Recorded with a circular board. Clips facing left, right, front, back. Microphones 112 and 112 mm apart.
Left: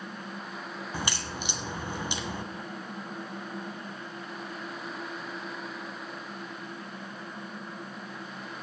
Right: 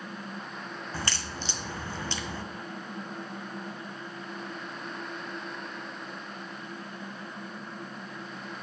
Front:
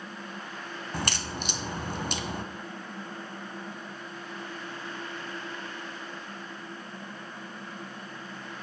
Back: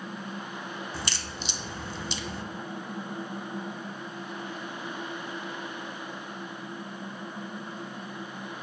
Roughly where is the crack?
Ahead.